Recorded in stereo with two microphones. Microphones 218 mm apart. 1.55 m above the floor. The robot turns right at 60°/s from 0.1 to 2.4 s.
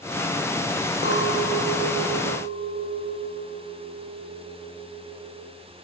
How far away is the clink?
About 2 m.